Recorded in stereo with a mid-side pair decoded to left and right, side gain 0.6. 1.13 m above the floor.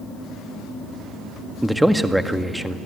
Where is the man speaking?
5° right, 1.5 m.